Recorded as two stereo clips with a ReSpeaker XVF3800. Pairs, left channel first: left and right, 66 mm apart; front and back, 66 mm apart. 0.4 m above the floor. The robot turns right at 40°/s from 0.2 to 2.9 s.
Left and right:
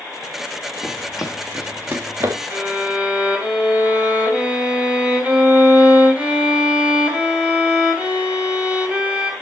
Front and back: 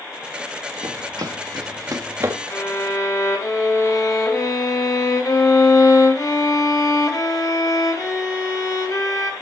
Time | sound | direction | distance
0.8 | running footsteps | 175° left | 1.6 m
2.5 | a violin | 35° right | 3 m